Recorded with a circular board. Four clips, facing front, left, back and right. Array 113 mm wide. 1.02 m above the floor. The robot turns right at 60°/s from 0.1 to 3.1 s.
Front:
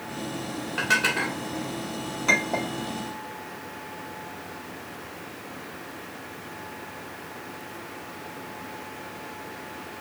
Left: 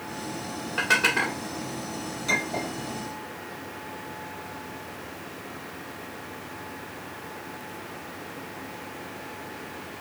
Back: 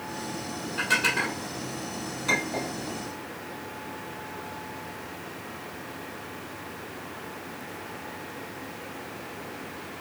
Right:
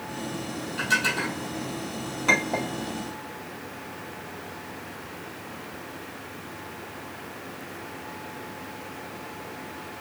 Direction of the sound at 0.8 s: 55° left.